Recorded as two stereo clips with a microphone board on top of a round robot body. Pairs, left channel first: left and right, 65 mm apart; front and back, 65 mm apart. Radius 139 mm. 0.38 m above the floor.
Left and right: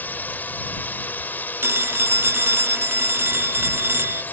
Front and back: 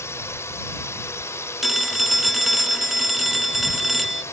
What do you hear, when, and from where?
0.0 s a drone: 35° left
1.6 s a phone ringing: 90° right